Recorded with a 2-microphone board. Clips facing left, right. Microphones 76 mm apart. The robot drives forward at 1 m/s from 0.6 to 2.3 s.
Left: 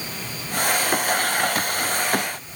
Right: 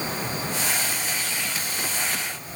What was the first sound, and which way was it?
Only background noise.